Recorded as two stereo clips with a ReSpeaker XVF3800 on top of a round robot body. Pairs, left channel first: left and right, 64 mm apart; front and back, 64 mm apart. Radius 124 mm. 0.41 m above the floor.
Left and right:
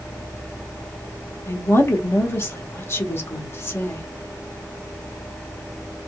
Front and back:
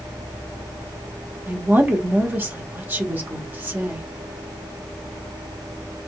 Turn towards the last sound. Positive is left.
turn(degrees=125)